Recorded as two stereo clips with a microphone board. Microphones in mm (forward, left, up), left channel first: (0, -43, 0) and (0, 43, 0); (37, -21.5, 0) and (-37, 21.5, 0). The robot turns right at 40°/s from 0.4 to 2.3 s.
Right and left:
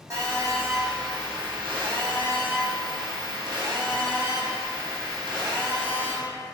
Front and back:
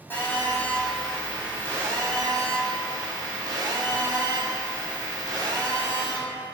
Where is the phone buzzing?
35° left, 1.3 m; by 6.2 s 115° left, 1.3 m.